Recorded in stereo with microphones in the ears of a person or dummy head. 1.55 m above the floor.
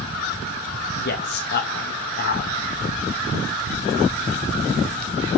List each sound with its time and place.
1.0 s a man speaking: 55° left (ahead or behind), 2.5 m